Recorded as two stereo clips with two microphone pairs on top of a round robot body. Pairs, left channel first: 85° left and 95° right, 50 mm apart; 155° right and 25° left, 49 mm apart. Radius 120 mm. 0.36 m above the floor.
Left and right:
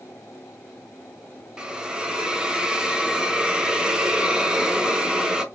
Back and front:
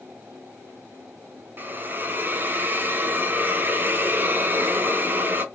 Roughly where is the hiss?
Ahead.